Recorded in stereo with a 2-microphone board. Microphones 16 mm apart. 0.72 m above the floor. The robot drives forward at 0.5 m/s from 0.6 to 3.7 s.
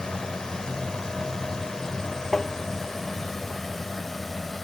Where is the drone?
60° left (ahead or behind); by 4.6 s 15° left (ahead or behind).